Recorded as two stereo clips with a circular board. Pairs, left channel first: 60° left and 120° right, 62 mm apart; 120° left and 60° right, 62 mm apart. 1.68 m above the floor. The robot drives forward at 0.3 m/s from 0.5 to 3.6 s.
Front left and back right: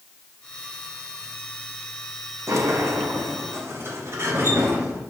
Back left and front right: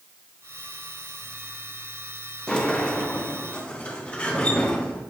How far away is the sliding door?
About 0.9 m.